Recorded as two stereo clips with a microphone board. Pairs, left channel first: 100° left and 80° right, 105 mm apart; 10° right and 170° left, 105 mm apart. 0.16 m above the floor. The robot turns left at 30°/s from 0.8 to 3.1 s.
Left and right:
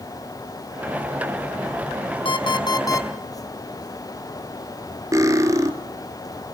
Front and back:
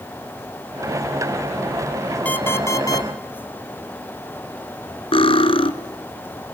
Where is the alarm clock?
65° left, 1.9 m; by 3.1 s 40° left, 1.9 m.